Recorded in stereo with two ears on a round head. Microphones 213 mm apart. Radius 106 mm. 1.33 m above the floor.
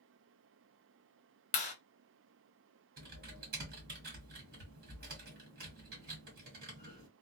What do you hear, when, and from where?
1.5 s a clap: 30° left (ahead or behind), 0.7 m
3.0 s typing on a keyboard: 40° right (ahead or behind), 1.5 m